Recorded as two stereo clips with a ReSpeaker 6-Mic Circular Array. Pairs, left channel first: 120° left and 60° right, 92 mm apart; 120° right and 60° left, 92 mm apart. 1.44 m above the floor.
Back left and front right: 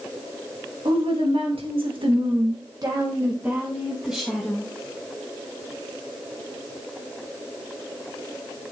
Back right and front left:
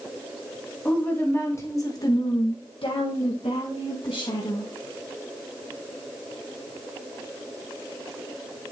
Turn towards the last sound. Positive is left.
turn(degrees=-150)